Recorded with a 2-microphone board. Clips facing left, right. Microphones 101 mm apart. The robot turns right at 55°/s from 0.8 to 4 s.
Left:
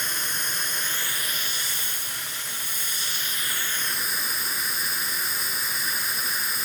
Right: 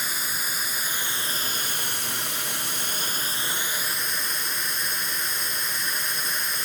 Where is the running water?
175° right, 0.9 m; by 6.7 s straight ahead, 0.9 m.